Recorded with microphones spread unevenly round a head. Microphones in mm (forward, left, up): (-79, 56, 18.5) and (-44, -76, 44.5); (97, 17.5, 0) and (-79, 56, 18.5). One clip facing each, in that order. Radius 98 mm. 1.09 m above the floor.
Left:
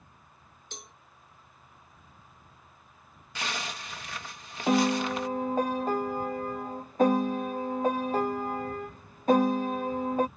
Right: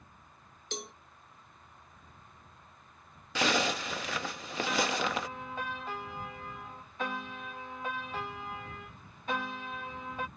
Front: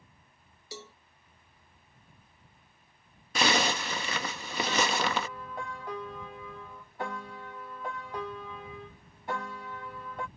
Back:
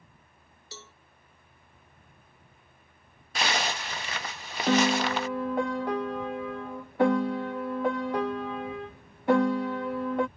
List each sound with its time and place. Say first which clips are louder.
0.7 s a cowbell: right 8 dB, front 4 dB; 85° right
3.4 s a zipper: right 7 dB, front 3 dB; 30° right
4.7 s a piano: left 8 dB, back 8 dB; 155° left